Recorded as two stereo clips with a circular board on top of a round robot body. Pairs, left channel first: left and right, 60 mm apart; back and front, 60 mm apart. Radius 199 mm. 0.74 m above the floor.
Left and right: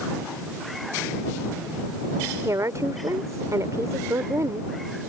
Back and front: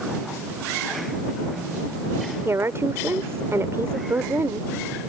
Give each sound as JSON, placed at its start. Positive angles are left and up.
{"t": 2.5, "sound": "a woman speaking", "azimuth_deg": -50}